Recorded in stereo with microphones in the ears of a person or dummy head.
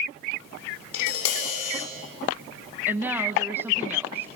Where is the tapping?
80° left, 3.5 m.